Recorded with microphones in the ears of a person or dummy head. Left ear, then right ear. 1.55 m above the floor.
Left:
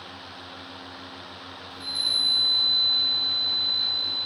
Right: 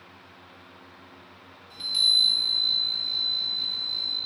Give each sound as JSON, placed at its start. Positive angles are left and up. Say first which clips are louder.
{"t": 1.7, "sound": "a chime", "louder": "right 4 dB", "side_deg": -60, "distance_m": 4.0}